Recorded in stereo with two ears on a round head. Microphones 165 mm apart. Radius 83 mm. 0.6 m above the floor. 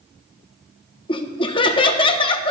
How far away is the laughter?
About 0.7 m.